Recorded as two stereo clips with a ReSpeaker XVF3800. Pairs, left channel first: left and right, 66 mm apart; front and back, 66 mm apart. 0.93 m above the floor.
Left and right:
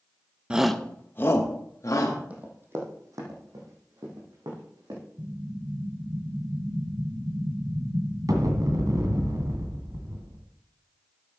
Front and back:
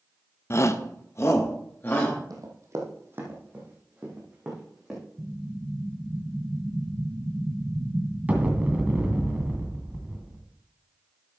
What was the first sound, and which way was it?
A shout, 20° right.